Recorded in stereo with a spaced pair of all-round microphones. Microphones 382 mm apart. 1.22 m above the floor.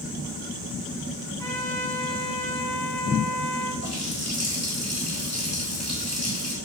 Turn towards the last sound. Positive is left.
turn(degrees=-40)  # may be behind; listen again after turning